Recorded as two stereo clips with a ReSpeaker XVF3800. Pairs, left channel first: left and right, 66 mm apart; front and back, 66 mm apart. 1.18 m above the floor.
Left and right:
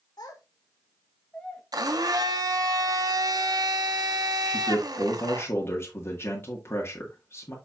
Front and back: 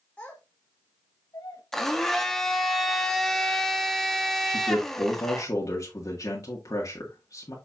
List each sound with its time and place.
0.2 s a child speaking: 70° left, 1.4 m; by 1.6 s 5° left, 1.4 m
1.7 s a blender: 85° right, 1.1 m
4.5 s a man speaking: 35° left, 1.7 m